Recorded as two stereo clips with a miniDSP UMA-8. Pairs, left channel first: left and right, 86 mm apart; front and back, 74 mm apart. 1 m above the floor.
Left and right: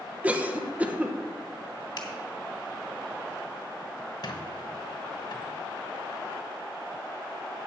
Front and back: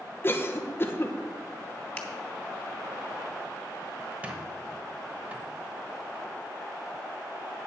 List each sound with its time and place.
0.2 s a cough: 30° right, 0.9 m
2.0 s a finger snap: 65° left, 2 m
4.2 s a squeak: 110° left, 1.2 m